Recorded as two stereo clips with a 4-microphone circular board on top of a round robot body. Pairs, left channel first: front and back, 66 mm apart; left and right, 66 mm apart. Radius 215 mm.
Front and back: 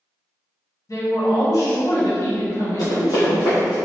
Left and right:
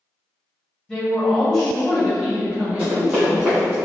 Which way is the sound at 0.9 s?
20° left.